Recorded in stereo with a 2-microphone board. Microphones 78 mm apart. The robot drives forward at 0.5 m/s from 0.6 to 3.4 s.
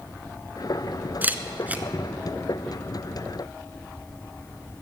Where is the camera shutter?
25° right (ahead or behind), 0.8 m; by 1.8 s 20° right (ahead or behind), 0.9 m.